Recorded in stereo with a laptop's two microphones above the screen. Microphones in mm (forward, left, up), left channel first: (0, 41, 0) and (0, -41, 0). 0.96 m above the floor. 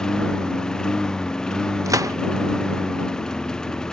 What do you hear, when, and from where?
0.0 s a lawn mower: 10° left (ahead or behind)
1.9 s a gunshot: 45° right (ahead or behind)